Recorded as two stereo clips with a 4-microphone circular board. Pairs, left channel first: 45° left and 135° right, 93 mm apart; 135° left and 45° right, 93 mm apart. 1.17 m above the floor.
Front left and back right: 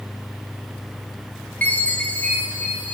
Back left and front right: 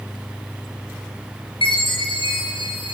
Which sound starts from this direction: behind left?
A chime, at 1.6 s.